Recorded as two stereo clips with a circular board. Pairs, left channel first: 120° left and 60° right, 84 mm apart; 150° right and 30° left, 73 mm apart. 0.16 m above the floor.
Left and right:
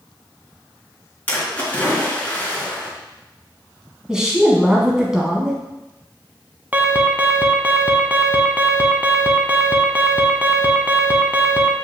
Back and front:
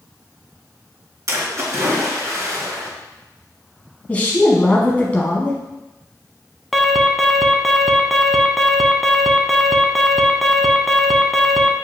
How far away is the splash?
About 2.5 m.